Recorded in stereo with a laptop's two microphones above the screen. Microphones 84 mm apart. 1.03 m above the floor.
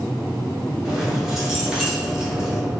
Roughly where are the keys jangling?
Centre.